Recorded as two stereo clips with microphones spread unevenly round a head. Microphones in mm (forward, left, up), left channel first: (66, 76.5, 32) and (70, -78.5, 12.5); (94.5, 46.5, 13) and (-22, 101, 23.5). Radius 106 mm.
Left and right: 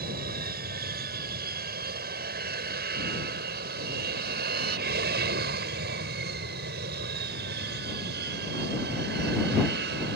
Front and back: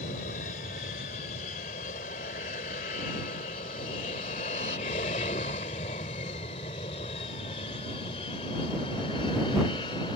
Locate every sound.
0.0 s an aircraft: 75° right; by 10.2 s 95° right